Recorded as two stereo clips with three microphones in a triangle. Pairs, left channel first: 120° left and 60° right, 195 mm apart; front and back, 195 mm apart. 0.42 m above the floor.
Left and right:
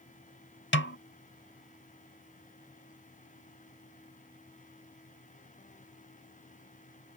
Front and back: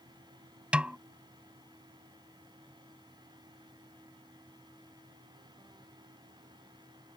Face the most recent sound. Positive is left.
turn(degrees=95)